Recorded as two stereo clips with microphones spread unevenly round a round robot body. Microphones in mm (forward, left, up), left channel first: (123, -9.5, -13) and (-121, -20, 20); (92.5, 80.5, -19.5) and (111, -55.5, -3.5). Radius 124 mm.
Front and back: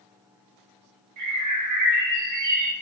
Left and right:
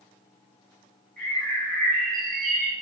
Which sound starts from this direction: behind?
A bird, at 1.2 s.